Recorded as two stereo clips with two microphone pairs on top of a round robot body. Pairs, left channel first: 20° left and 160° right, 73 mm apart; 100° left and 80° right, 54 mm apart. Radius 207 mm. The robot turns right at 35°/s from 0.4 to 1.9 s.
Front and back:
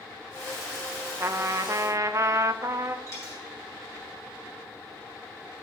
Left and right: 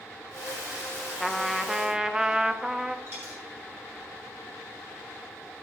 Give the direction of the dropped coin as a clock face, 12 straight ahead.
1 o'clock.